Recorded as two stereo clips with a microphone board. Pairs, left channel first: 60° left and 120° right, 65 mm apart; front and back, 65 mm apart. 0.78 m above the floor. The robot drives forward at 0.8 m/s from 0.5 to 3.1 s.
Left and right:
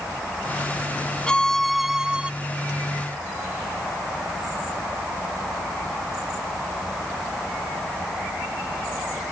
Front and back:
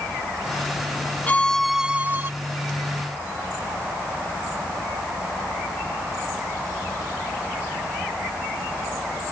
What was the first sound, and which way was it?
A violin, straight ahead.